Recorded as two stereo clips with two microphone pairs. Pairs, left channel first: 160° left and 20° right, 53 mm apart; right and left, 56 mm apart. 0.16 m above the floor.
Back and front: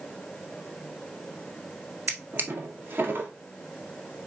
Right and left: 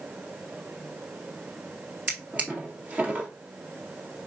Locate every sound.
2.1 s a drawer: 25° left, 1.6 m